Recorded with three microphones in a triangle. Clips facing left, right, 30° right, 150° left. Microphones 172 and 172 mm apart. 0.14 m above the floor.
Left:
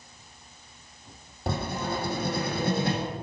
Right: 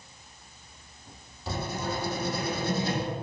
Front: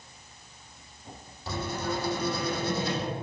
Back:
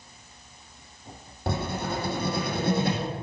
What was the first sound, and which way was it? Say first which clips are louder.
Writing: left 2 dB, back 2 dB; 120° left.